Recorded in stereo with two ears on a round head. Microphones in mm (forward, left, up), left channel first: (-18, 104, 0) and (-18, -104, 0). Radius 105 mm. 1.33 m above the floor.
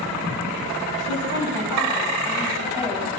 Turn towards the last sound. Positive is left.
turn(degrees=-10)  # may be behind; listen again after turning